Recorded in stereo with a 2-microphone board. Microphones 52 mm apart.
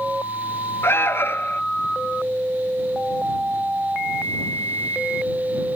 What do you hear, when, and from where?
0.8 s an alarm: 45° left (ahead or behind)